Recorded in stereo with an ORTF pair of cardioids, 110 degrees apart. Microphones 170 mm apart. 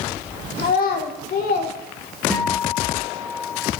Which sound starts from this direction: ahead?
A guitar, at 2.3 s.